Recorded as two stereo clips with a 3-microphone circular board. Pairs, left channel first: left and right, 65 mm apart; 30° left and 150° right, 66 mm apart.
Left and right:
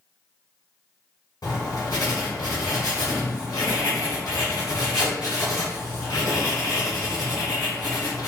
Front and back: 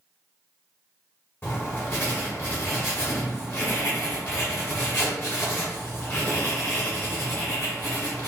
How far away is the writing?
About 1.2 m.